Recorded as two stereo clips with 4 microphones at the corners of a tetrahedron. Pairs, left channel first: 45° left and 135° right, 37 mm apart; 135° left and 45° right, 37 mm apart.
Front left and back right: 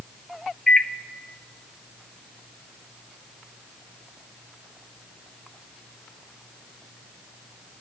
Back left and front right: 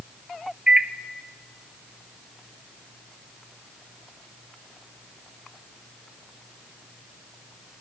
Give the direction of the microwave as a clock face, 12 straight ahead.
1 o'clock.